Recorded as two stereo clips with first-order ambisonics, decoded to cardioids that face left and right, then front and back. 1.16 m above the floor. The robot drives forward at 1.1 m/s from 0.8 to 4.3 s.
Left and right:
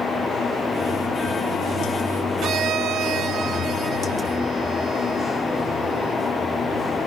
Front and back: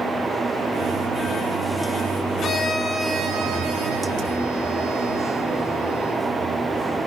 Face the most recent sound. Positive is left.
turn(degrees=-160)